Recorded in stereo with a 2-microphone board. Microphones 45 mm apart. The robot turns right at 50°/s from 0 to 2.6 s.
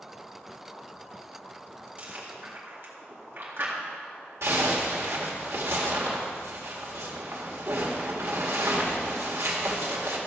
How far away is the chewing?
About 2 m.